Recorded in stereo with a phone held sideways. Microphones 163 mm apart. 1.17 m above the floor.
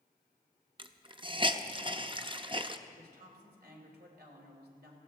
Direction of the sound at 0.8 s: 30° right (ahead or behind).